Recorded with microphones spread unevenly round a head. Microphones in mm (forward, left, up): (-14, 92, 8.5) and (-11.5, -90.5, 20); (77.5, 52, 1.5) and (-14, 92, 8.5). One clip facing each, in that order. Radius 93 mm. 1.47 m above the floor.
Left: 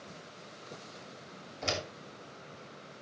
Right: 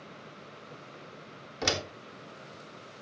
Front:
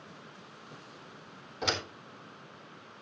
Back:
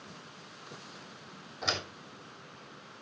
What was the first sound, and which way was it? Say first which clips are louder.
A door slam: right 4 dB, front 2 dB; 85° right.